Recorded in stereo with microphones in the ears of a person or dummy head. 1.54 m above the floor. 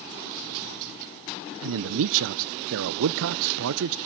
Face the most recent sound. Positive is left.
turn(degrees=-70)  # may be behind; listen again after turning